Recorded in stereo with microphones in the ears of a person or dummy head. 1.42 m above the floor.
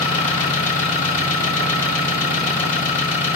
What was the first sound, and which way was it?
An engine running, 40° left (ahead or behind).